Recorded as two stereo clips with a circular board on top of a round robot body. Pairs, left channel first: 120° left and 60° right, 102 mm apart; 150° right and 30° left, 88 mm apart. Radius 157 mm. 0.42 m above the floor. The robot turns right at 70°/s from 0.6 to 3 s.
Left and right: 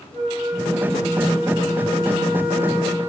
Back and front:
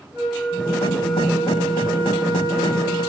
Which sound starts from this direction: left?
A flute, at 0.1 s.